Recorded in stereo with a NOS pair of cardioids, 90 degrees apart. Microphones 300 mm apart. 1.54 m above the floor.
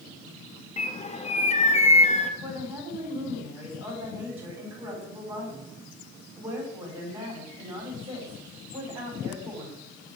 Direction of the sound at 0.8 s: 25° left.